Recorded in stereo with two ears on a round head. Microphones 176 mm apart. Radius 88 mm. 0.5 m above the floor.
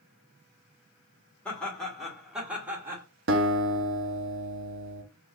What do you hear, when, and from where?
1.4 s laughter: 5° left (ahead or behind), 1.9 m; by 3.0 s 15° right (ahead or behind), 1.6 m
3.3 s a guitar: 70° right (ahead or behind), 0.8 m